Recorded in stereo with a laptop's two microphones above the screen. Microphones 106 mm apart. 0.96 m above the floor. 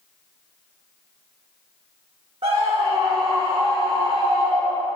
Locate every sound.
2.4 s a scream: 60° right (ahead or behind), 1.0 m